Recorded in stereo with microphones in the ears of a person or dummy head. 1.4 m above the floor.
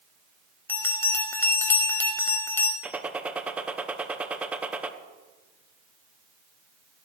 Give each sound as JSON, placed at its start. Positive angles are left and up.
{"t": 0.7, "sound": "a bell", "side_deg": 10, "distance_m": 0.8}
{"t": 2.8, "sound": "a gunshot", "side_deg": -10, "distance_m": 0.6}